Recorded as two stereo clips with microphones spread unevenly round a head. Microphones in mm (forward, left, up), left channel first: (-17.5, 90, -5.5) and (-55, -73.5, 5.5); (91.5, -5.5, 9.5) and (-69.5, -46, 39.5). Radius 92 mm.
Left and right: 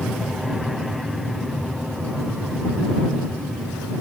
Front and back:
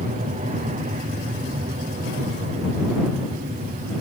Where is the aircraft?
170° left.